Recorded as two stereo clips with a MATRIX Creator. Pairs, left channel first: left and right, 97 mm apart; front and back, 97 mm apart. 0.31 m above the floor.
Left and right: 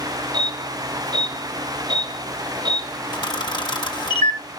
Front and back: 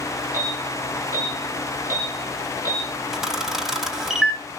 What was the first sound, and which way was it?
An alarm, 125° right.